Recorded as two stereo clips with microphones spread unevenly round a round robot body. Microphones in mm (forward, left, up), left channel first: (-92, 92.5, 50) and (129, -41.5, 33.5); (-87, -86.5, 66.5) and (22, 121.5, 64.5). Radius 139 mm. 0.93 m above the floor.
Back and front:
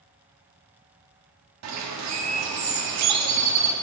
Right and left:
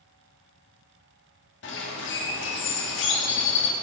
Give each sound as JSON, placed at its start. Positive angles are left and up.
{"t": 1.6, "sound": "a bird", "azimuth_deg": -70, "distance_m": 1.0}